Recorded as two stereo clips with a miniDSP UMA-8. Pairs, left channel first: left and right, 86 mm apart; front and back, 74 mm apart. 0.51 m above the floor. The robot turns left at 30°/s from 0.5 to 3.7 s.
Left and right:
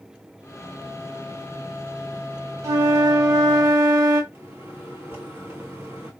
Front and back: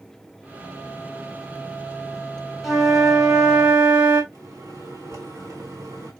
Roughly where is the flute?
Right.